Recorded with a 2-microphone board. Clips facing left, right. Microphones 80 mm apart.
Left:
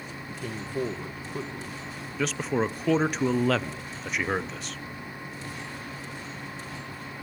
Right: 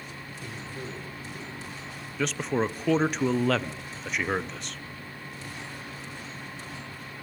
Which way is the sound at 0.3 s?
60° left (ahead or behind).